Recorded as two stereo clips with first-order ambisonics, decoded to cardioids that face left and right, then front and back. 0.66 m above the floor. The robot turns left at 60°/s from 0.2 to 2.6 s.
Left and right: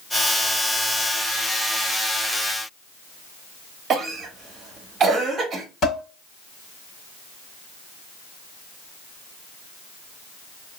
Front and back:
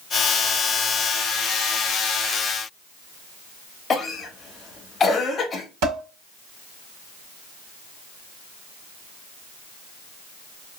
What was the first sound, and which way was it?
A cough, 55° right.